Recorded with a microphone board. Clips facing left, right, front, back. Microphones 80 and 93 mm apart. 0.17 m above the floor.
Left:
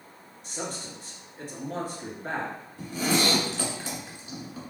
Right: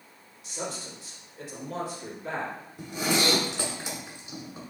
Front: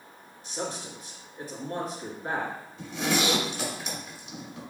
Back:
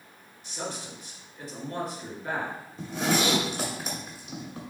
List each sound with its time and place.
0.4 s a man speaking: 50° left, 1.9 m
2.8 s a zipper: 155° right, 1.6 m